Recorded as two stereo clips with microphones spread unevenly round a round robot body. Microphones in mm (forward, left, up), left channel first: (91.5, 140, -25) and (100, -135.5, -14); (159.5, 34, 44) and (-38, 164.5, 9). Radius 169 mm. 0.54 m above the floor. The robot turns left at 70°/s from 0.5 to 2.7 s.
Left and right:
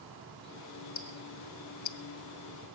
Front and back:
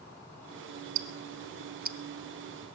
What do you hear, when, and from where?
0.9 s ticking: 155° left, 0.8 m; by 2.0 s 85° left, 0.8 m